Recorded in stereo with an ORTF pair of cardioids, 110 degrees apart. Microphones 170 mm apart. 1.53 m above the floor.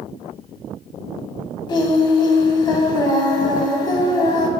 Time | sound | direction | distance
1.7 | singing | 25° left | 0.6 m